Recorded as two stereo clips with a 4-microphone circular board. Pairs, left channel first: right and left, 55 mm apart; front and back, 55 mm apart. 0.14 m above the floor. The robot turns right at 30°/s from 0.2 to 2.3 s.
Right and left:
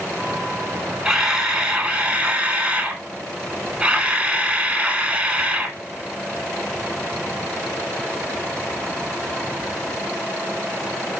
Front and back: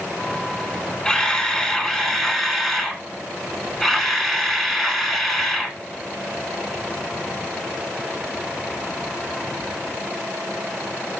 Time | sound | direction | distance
1.1 | a camera shutter | 35° left | 1.3 m